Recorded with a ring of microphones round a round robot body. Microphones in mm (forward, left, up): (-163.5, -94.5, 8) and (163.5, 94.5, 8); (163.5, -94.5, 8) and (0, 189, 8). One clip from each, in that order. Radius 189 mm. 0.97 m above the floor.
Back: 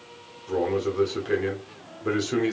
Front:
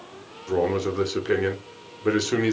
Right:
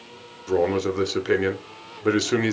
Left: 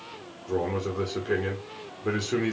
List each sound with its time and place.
0.5 s a man speaking: 35° right, 1.0 m